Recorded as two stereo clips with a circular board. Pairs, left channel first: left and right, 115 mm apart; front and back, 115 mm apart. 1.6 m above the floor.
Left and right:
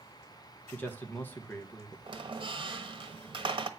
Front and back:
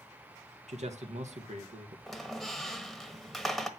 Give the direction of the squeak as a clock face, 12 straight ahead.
3 o'clock.